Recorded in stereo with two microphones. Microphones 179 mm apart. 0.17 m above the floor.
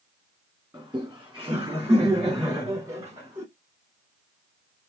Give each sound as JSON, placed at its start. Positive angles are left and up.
{"t": 0.7, "sound": "laughter", "side_deg": -10, "distance_m": 1.7}